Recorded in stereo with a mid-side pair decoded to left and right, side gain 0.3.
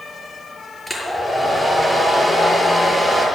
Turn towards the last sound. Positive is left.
turn(degrees=10)